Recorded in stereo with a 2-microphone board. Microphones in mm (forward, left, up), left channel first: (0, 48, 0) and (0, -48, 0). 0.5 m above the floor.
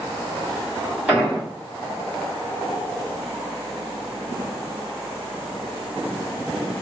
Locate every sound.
1.1 s an explosion: 10° right (ahead or behind), 1.7 m